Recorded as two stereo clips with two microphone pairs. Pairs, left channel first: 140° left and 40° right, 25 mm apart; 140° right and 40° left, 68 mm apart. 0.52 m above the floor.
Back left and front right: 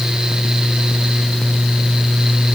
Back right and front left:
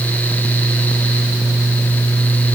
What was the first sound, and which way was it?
Only background noise.